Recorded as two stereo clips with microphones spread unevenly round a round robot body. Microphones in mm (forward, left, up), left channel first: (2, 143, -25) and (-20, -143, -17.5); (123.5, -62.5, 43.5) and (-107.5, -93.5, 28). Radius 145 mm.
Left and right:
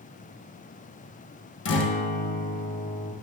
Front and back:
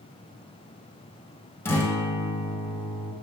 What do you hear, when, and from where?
1.6 s a guitar: 85° left, 0.9 m